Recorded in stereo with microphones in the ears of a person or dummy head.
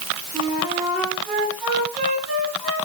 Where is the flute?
20° right (ahead or behind), 4.5 m.